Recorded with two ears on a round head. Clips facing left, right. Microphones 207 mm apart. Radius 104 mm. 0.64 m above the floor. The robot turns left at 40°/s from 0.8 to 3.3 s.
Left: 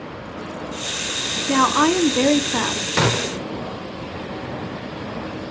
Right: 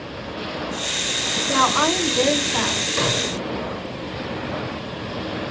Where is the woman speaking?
120° left, 0.9 m; by 2.9 s 65° left, 0.9 m.